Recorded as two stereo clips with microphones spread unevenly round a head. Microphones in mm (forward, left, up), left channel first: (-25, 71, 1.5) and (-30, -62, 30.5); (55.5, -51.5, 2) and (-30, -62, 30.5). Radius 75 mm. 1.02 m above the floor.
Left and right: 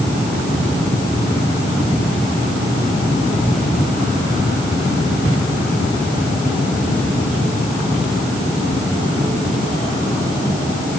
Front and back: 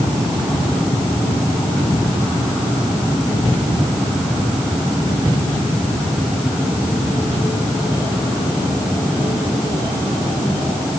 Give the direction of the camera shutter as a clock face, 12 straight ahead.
I don't hear a camera shutter.